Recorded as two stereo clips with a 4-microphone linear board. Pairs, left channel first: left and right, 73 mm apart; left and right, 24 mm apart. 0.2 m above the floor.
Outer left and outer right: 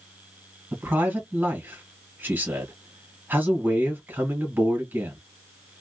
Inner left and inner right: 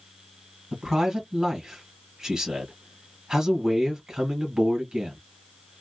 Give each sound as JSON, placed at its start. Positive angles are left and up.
{"t": 0.7, "sound": "a man speaking", "side_deg": -25, "distance_m": 1.8}